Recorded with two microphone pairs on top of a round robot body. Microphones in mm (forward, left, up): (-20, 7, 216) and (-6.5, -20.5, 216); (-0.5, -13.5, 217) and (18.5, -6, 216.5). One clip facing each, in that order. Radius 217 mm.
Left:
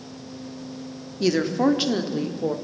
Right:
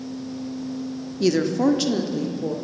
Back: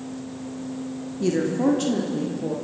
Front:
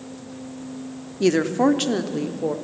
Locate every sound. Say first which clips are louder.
1.2 s a woman speaking: right 1 dB, front 4 dB; 40° left, 1.8 m; by 2.5 s 70° left, 2.5 m